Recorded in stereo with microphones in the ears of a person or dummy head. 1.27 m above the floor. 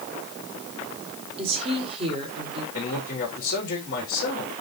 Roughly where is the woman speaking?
Right.